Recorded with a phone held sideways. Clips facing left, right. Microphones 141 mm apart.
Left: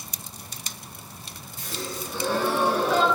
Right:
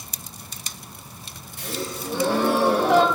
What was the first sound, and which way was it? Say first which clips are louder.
A gasp: right 4 dB; 70° right (ahead or behind).